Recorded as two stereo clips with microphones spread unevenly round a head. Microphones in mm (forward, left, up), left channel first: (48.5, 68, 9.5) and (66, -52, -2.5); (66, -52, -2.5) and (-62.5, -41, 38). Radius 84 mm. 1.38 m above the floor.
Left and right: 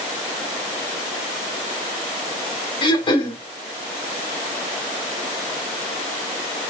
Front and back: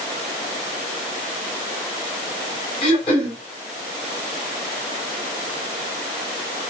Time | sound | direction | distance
2.8 | throat clearing | 50° left | 1.6 m